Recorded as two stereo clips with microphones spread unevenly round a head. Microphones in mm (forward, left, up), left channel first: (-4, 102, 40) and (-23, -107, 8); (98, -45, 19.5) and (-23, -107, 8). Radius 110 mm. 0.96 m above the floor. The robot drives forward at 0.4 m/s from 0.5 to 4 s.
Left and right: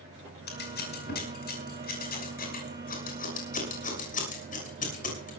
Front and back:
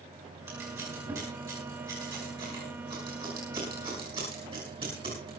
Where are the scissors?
130° left, 5.5 m; by 5.3 s 140° left, 6.5 m.